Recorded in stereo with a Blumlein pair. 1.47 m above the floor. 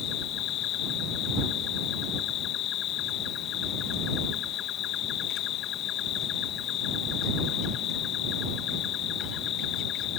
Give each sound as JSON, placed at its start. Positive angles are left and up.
{"t": 0.0, "sound": "an insect", "azimuth_deg": 35}